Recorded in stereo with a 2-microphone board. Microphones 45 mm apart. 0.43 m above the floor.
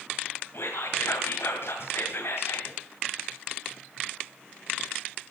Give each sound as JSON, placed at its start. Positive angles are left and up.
{"t": 0.5, "sound": "whispering", "side_deg": 65, "distance_m": 2.0}